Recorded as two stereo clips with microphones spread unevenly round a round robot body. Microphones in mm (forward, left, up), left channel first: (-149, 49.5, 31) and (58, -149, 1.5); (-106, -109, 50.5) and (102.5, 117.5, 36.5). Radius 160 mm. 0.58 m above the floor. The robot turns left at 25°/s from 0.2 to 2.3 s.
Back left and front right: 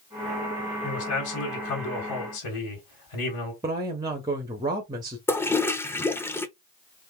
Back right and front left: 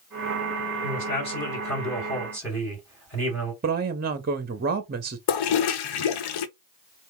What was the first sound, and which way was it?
A man speaking, straight behind.